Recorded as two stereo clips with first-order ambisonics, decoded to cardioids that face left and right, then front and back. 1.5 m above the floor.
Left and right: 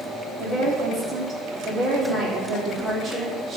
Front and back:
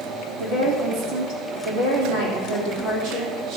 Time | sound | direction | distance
0.4 | a woman speaking | 150° right | 4.5 m